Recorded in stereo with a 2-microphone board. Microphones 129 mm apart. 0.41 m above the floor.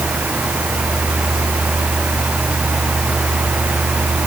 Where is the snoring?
No snoring in this recording.